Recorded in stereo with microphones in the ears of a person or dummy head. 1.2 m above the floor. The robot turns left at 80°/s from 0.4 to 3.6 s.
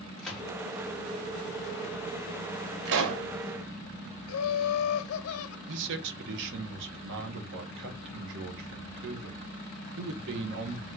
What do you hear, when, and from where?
0.2 s a gunshot: 5° left (ahead or behind), 1.6 m; by 0.5 s 10° left (ahead or behind), 1.6 m
2.9 s a pop: 60° right, 1.3 m; by 3.2 s 95° right, 1.3 m
4.3 s laughter: 70° left (ahead or behind), 0.6 m
5.7 s a man speaking: 65° right (ahead or behind), 1.2 m